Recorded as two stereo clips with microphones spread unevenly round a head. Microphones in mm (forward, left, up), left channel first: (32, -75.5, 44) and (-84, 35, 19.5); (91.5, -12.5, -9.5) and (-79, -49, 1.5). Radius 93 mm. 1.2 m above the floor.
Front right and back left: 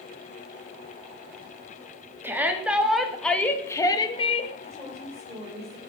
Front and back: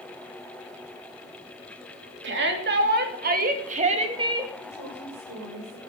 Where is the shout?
145° right, 3.5 m; by 4.5 s 95° right, 2 m.